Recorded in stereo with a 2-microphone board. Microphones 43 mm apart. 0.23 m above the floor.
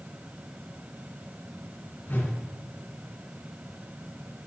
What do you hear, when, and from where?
2.1 s a whoosh: 45° left (ahead or behind), 3 m